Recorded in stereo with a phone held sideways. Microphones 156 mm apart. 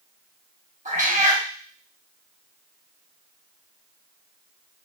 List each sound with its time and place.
0.8 s a cat meowing: 50° right (ahead or behind), 0.8 m